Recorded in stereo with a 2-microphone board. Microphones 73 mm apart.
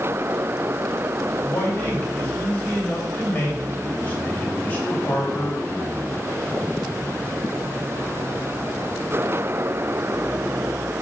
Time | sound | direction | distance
1.4 | a man speaking | 25° left (ahead or behind) | 2.5 m